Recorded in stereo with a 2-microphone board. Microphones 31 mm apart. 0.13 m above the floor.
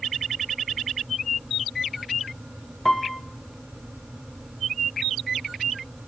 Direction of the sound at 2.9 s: Centre (ahead or behind).